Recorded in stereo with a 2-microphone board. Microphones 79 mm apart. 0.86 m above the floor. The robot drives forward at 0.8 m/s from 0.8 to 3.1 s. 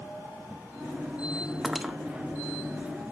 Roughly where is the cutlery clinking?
Centre.